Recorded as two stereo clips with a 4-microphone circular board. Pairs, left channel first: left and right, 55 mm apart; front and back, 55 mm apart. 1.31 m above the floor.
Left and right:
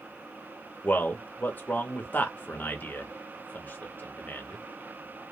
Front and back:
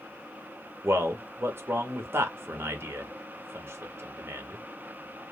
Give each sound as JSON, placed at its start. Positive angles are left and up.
{"t": 0.8, "sound": "a man speaking", "azimuth_deg": 145, "distance_m": 0.7}